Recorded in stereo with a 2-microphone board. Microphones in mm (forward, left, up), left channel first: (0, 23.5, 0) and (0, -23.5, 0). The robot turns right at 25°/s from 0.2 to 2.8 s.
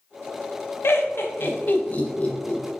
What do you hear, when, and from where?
0.8 s laughter: 65° left (ahead or behind), 0.7 m; by 2.6 s 20° left (ahead or behind), 0.7 m